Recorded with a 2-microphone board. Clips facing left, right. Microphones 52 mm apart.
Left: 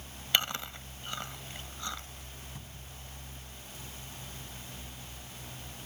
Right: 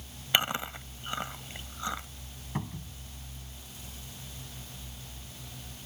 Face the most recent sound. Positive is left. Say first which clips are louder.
# right 10 dB
turn(degrees=-50)  # may be behind; listen again after turning